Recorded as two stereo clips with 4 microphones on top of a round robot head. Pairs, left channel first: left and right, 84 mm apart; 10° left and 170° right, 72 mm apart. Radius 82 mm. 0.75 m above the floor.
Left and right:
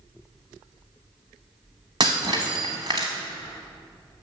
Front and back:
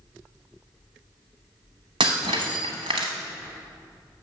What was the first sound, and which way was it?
Breaking glass, 145° right.